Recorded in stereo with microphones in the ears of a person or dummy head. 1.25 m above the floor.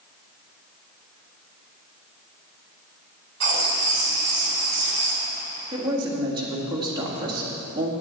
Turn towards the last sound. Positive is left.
turn(degrees=-20)  # may be behind; listen again after turning